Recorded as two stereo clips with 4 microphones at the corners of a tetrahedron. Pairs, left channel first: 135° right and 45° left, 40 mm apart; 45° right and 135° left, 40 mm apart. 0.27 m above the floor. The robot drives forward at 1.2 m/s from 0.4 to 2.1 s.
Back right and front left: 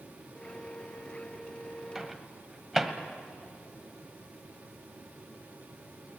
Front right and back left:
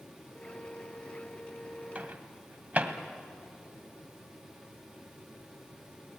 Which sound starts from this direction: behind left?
A microwave, at 1.9 s.